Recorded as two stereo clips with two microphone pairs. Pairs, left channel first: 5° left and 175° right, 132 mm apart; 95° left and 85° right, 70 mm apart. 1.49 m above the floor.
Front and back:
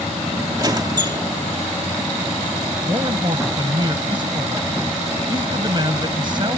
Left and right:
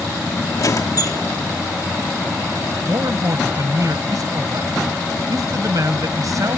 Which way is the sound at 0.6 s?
125° left.